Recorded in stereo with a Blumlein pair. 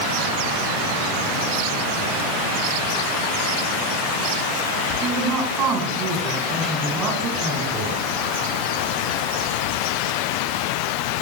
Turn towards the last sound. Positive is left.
turn(degrees=-25)